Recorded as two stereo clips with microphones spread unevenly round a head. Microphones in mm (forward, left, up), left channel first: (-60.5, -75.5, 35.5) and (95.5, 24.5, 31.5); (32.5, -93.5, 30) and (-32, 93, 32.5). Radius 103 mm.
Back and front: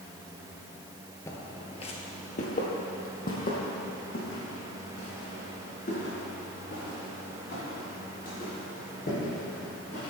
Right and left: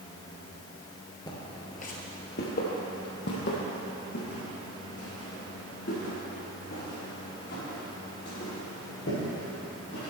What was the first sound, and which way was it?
Footsteps, 105° right.